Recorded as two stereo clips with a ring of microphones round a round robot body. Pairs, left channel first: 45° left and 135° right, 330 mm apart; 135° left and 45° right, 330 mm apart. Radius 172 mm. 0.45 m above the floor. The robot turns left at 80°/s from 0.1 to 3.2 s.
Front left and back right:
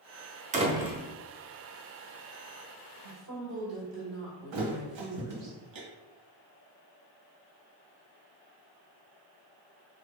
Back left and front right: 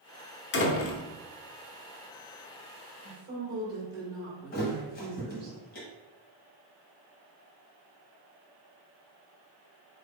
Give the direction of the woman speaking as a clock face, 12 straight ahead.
3 o'clock.